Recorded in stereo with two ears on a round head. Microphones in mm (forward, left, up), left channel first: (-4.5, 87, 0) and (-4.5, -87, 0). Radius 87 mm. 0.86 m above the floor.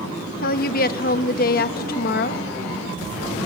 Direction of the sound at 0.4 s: 45° left (ahead or behind).